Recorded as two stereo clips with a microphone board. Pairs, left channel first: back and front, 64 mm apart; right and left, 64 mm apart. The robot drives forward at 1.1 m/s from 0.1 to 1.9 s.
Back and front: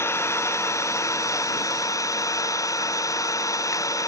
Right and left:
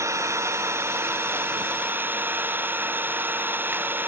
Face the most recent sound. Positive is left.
turn(degrees=150)